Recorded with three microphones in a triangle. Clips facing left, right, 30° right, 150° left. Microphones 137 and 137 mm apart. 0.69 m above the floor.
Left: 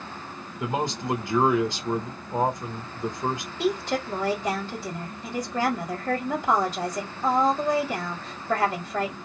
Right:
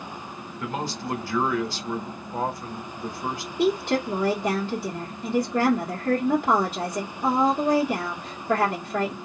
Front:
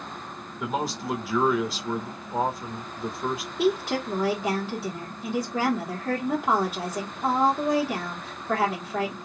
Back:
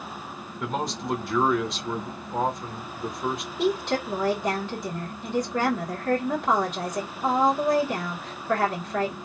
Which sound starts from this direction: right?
A woman speaking, at 3.6 s.